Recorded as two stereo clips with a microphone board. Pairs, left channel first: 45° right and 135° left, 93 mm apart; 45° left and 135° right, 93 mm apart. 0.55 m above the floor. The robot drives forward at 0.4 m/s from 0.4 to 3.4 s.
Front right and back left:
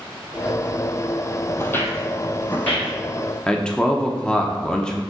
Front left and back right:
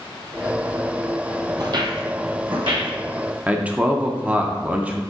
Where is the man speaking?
105° right, 0.7 m.